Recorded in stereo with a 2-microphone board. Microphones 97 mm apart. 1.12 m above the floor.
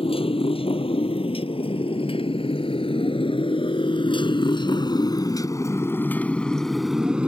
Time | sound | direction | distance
0.0 | a motorcycle | 85° left | ?